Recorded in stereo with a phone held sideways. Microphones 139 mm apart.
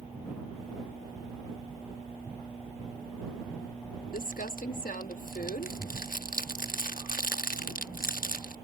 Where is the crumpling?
85° left.